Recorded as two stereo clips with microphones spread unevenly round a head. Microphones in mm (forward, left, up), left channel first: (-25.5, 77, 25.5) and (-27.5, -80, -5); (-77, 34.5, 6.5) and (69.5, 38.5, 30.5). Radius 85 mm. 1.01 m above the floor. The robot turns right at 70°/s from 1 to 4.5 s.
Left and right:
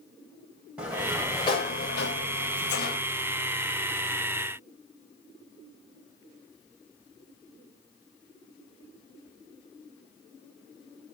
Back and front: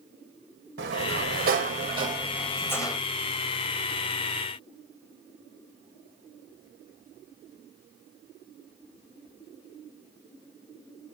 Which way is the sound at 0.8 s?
10° right.